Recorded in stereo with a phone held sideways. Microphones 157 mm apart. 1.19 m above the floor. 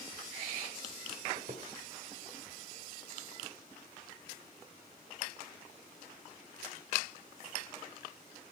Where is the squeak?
55° right (ahead or behind), 1.8 m.